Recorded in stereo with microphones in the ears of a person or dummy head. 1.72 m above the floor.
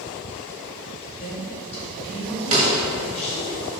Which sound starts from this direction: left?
A woman speaking, at 1.2 s.